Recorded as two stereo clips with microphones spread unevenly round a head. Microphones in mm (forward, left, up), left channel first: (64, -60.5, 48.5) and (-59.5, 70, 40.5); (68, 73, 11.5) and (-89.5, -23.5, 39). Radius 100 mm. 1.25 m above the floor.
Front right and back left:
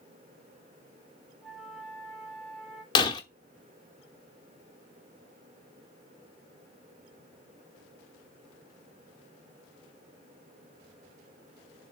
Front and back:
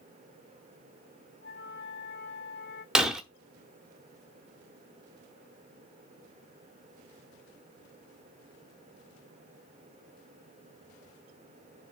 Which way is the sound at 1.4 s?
40° left.